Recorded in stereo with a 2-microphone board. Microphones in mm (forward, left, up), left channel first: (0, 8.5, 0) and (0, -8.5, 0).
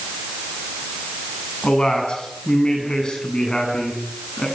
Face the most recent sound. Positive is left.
turn(degrees=65)  # may be behind; listen again after turning